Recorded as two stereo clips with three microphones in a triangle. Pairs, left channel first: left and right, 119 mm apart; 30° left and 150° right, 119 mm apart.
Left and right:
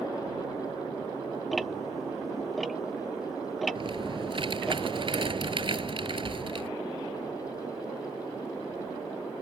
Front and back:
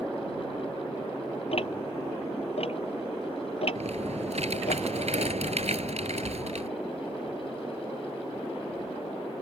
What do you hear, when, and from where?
1.5 s ticking: straight ahead
3.8 s typing on a keyboard: 130° right